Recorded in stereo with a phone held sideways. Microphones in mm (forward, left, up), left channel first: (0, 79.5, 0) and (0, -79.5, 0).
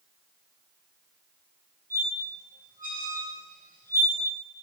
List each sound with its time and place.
1.9 s a squeak: 60° right (ahead or behind), 1.7 m